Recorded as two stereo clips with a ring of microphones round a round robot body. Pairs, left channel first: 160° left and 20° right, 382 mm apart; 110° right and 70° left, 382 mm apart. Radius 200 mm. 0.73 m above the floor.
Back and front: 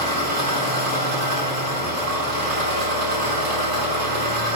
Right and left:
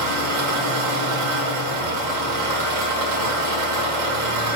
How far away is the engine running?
About 1.4 m.